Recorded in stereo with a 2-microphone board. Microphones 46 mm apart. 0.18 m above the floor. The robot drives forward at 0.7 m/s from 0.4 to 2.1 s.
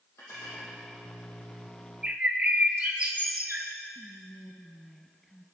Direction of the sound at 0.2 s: 70° left (ahead or behind).